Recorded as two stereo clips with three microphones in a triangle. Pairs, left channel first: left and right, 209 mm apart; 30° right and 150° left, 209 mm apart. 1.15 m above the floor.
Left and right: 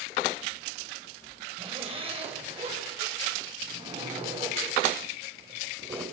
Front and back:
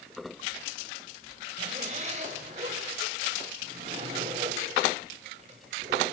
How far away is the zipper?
About 5.5 m.